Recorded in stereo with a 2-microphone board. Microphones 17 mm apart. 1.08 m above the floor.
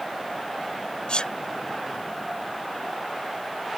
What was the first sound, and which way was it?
A sneeze, 65° left (ahead or behind).